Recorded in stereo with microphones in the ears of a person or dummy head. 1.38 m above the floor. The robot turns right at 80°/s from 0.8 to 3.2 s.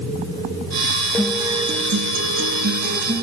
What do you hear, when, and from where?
1.1 s a guitar: 175° left, 1.0 m; by 3.2 s 20° right, 1.0 m